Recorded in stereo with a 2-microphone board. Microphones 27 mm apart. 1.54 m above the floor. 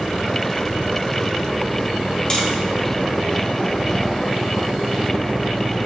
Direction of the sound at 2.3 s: 30° left (ahead or behind).